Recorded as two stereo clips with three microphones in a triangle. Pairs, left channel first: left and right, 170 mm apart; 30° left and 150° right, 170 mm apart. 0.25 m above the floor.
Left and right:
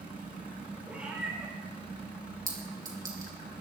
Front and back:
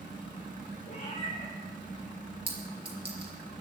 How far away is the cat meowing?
About 5 m.